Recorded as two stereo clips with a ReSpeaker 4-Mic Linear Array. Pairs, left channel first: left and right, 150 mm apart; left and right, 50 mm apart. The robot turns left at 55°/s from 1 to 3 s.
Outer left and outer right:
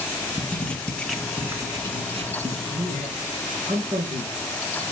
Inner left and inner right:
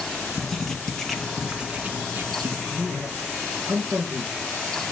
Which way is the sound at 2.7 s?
70° right (ahead or behind).